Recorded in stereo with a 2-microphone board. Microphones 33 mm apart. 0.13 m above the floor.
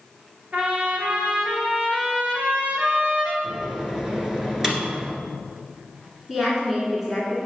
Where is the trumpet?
50° right (ahead or behind), 2.0 m.